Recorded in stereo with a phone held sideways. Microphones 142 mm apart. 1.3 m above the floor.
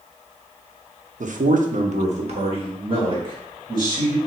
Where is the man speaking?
60° right (ahead or behind), 0.7 m; by 4.2 s 30° right (ahead or behind), 2.5 m.